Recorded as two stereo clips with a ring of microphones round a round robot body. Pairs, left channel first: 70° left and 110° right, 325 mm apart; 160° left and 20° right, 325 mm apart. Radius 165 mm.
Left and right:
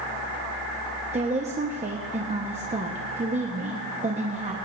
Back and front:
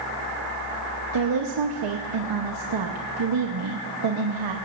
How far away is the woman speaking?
About 1.1 m.